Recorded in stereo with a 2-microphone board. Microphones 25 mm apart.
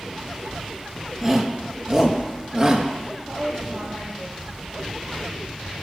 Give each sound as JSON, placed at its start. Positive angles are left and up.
{"t": 1.2, "sound": "a shout", "side_deg": -15, "distance_m": 4.0}
{"t": 3.3, "sound": "a woman speaking", "side_deg": -45, "distance_m": 10.0}